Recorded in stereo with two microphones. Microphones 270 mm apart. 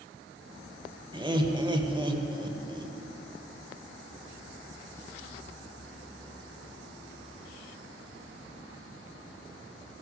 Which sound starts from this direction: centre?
Laughter, at 1.1 s.